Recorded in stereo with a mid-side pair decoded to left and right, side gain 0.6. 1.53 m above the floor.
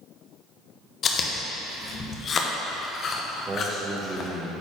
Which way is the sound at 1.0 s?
40° left.